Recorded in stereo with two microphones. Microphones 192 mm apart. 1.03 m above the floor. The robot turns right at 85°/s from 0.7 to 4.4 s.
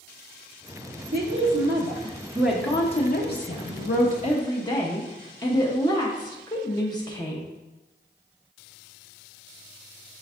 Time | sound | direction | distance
1.1 | a woman speaking | 120° right | 0.7 m